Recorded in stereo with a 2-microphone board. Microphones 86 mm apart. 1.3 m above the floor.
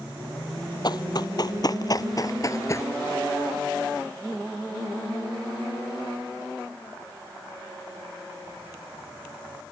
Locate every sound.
0.8 s running footsteps: 50° left (ahead or behind); by 2.9 s 35° left (ahead or behind)